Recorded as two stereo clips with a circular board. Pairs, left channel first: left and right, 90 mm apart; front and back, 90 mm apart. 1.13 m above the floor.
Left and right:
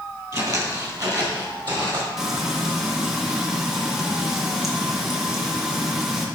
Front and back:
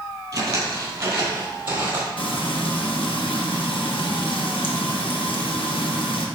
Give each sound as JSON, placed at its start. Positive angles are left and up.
{"t": 0.3, "sound": "footsteps", "azimuth_deg": -135, "distance_m": 1.8}
{"t": 2.2, "sound": "frying", "azimuth_deg": -5, "distance_m": 1.0}